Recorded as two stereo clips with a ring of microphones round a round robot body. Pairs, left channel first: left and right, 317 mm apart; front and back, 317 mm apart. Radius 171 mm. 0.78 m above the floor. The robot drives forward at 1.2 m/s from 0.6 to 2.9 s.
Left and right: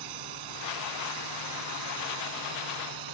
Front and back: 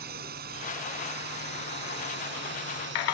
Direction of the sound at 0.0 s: 115° right.